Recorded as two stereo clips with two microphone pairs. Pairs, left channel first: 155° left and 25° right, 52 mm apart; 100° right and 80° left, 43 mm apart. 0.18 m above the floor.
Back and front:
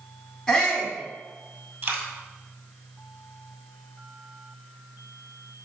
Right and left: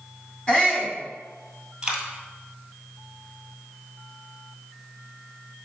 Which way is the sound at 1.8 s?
10° left.